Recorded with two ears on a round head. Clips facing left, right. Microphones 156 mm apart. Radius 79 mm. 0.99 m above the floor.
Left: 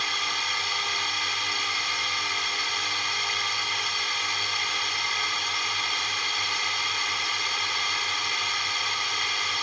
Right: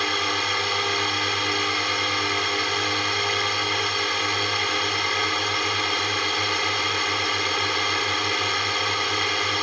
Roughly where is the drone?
Right.